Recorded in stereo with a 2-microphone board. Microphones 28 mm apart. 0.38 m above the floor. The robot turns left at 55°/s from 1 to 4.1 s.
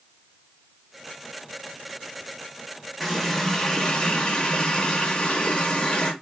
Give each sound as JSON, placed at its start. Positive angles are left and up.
{"t": 3.0, "sound": "a running tap", "azimuth_deg": -175, "distance_m": 0.6}